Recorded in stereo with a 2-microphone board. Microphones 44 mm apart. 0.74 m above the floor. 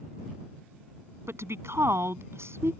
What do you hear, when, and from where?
1.3 s a woman speaking: 80° right; by 2.7 s 75° right (ahead or behind)